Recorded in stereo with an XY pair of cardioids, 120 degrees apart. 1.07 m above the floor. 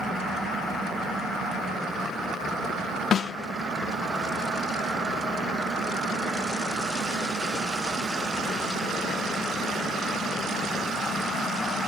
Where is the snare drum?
45° left, 0.7 m.